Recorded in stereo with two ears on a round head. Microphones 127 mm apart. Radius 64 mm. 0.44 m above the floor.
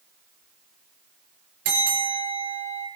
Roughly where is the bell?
Right.